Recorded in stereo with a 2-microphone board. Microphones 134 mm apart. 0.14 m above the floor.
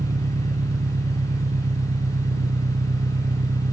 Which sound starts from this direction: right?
An engine running, at 0.0 s.